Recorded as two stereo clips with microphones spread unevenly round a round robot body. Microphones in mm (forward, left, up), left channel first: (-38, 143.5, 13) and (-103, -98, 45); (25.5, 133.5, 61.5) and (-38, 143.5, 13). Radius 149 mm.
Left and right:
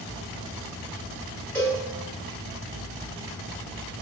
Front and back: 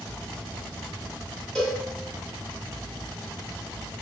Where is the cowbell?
140° left, 1.4 m.